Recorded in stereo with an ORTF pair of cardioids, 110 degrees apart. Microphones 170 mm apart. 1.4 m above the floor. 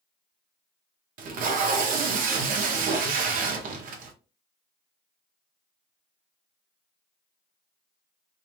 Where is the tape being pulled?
55° right, 0.7 m.